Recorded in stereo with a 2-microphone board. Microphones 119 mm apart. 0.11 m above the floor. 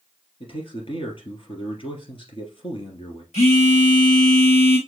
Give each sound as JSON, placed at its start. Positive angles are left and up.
{"t": 0.4, "sound": "a man speaking", "side_deg": 50, "distance_m": 2.5}
{"t": 3.3, "sound": "a phone buzzing", "side_deg": 70, "distance_m": 1.3}